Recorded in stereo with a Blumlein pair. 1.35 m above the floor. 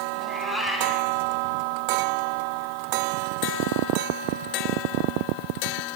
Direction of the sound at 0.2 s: 5° right.